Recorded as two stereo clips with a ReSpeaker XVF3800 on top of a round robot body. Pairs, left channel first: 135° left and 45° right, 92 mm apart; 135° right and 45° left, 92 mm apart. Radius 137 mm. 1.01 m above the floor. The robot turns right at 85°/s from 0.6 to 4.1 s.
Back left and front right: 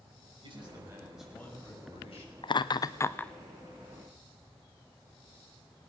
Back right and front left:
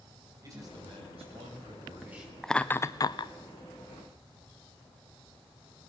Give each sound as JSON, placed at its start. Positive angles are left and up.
{"t": 0.4, "sound": "a man speaking", "azimuth_deg": -10, "distance_m": 5.5}
{"t": 2.4, "sound": "laughter", "azimuth_deg": 135, "distance_m": 0.5}